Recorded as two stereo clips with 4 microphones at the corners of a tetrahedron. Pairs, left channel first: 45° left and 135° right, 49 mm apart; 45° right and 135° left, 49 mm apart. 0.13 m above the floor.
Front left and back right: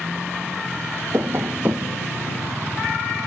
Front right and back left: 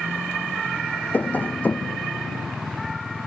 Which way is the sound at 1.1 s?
100° right.